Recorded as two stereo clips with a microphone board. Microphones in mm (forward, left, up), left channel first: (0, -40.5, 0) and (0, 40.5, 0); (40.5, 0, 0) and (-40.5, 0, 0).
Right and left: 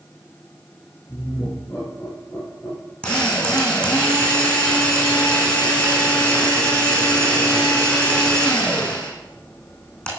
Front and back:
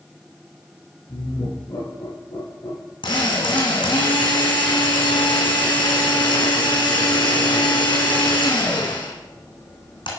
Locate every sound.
1.1 s laughter: 20° right, 4.5 m
3.0 s a drill: 15° right, 3 m